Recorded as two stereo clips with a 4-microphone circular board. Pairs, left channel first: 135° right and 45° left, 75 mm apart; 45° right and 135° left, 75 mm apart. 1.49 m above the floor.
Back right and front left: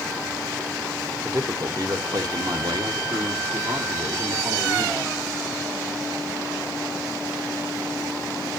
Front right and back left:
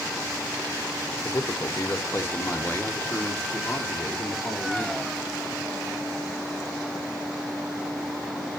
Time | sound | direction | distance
1.2 | a man speaking | 5° right | 0.8 m